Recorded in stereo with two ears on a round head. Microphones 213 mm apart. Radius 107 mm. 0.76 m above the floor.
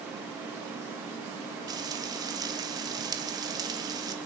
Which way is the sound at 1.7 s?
20° right (ahead or behind).